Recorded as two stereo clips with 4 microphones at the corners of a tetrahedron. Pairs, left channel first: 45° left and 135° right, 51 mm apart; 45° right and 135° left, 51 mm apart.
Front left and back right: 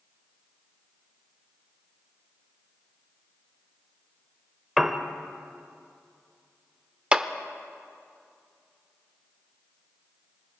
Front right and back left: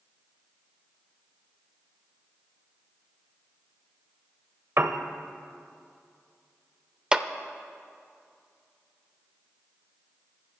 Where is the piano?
140° left, 0.8 m.